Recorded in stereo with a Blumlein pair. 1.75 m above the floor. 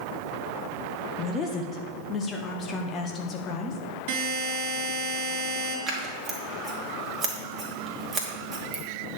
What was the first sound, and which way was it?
A woman speaking, 25° left.